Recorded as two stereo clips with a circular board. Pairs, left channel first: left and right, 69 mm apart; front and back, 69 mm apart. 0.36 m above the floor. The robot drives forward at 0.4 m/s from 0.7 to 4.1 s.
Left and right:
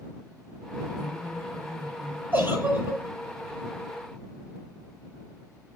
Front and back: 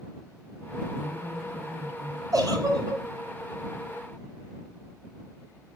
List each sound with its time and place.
1.0 s a woman speaking: 105° right, 6 m; by 2.2 s 110° right, 6 m
2.3 s a giggle: 150° right, 6.5 m